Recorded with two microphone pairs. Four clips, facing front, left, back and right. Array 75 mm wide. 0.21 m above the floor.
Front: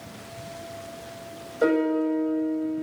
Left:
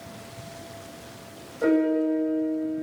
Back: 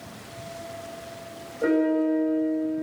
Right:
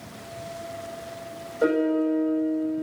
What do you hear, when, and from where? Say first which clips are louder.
1.6 s a piano: even, even; 30° right, 9 m